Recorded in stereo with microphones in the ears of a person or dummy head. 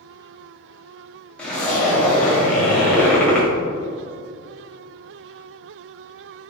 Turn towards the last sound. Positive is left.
turn(degrees=0)  # may be behind; listen again after turning